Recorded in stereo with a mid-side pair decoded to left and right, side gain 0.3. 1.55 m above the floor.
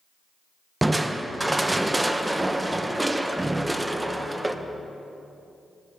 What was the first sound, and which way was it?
Crushing, 15° right.